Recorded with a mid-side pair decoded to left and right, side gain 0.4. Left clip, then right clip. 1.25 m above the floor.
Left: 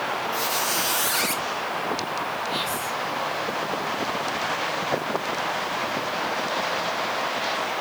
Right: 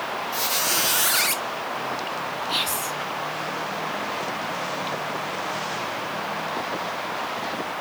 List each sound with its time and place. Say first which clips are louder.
0.3 s a squeak: right 3 dB; 35° right, 0.8 m
2.5 s whispering: right 1 dB; 60° right, 2 m